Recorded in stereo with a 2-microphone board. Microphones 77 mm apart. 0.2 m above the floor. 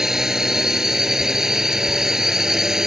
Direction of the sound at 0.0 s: 5° right (ahead or behind).